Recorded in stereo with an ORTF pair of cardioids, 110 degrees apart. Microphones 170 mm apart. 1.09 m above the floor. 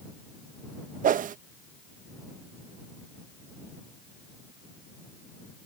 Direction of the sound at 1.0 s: 45° right.